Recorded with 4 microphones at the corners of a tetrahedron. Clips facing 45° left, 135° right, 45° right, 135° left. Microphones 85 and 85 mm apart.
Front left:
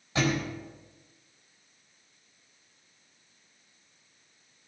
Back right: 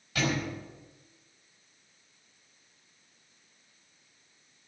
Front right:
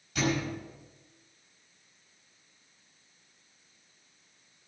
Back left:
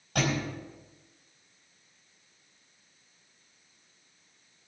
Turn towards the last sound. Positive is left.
turn(degrees=105)